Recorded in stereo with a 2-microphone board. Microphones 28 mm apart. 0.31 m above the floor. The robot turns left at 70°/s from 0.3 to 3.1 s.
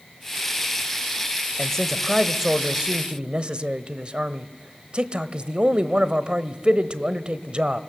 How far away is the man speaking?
About 1.1 m.